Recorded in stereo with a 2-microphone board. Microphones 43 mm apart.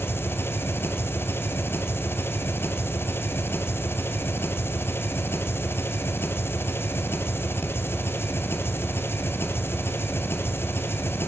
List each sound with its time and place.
0.0 s an engine running: 65° left (ahead or behind), 2.5 m